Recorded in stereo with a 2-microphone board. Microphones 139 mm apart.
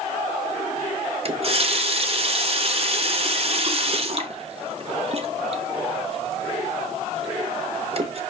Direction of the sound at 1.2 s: 45° right (ahead or behind).